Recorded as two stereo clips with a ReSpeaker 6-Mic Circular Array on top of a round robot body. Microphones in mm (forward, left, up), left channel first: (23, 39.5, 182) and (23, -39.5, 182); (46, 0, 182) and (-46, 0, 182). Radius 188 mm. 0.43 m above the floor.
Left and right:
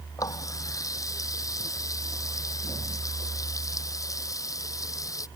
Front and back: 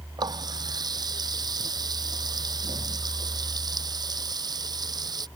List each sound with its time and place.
0.2 s a running tap: 135° left